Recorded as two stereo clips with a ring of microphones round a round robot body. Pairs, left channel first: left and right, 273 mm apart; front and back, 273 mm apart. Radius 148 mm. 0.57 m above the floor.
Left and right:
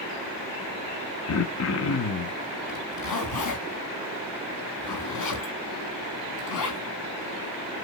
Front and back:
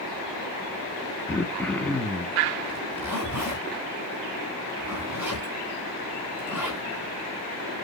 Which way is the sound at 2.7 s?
95° left.